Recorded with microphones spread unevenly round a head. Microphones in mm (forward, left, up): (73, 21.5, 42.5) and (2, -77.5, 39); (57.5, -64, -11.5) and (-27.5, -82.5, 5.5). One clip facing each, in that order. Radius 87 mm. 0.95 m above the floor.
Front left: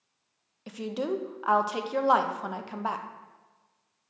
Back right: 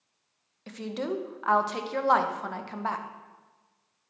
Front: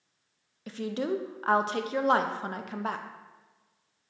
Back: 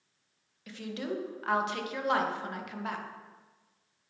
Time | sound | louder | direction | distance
0.7 | a woman speaking | front left 1 dB, front 6 dB | 25° right | 0.8 m